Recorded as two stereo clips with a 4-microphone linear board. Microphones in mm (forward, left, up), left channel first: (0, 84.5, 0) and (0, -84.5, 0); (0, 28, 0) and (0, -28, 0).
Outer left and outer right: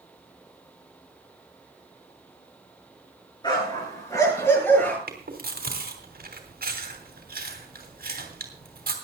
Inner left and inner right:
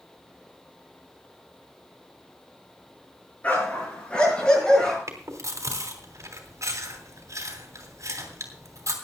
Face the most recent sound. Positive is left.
turn(degrees=-60)  # may be behind; listen again after turning